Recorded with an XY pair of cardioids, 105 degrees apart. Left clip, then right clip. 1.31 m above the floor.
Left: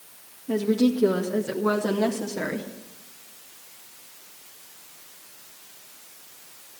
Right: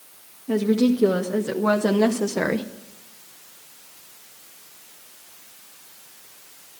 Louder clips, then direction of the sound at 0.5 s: Right 2 dB; 30° right.